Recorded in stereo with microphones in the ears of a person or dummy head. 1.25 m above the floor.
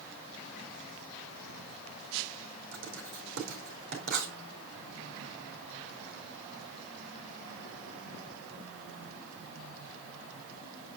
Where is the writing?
65° right (ahead or behind), 4.5 m.